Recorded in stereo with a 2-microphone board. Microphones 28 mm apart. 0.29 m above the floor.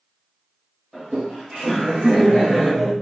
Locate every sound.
0.9 s laughter: centre (ahead or behind), 1.4 m; by 2.9 s 15° left (ahead or behind), 1.5 m